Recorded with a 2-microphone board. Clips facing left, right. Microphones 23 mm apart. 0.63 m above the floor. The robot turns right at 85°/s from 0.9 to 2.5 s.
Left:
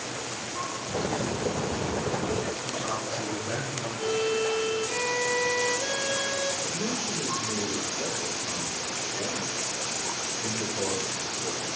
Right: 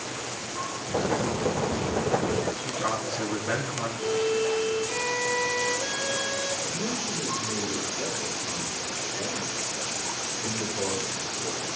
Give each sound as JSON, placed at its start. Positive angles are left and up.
{"t": 2.6, "sound": "a man speaking", "side_deg": -55, "distance_m": 4.5}
{"t": 4.0, "sound": "a violin", "side_deg": 5, "distance_m": 2.0}
{"t": 6.6, "sound": "a man speaking", "side_deg": -15, "distance_m": 2.5}